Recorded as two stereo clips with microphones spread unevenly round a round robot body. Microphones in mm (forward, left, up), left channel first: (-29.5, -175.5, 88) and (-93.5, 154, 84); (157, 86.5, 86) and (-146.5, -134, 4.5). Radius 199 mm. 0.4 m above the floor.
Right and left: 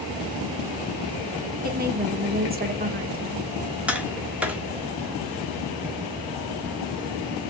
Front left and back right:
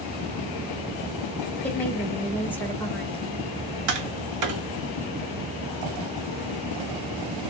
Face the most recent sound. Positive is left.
turn(degrees=-175)